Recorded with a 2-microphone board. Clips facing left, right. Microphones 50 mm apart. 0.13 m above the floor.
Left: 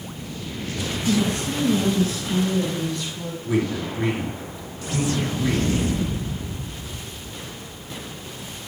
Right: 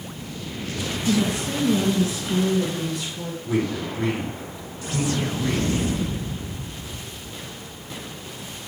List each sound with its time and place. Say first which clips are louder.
1.1 s a woman speaking: even; 15° right (ahead or behind), 1.5 m; by 3.4 s 10° right (ahead or behind), 2.5 m
3.5 s a man speaking: left 1 dB; 10° left (ahead or behind), 2 m